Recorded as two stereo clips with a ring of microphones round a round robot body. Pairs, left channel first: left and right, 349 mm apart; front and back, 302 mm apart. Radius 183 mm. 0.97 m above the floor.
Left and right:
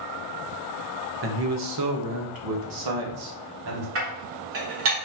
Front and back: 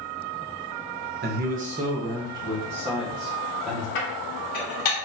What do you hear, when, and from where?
1.2 s a man speaking: 130° right, 0.9 m; by 3.9 s 90° right, 1.9 m
4.0 s dishes clattering: 35° right, 1.5 m